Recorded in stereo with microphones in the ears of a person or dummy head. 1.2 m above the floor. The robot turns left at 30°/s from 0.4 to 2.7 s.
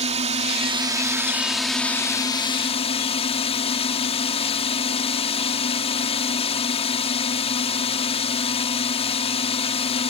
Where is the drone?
140° right; by 10.1 s 150° left.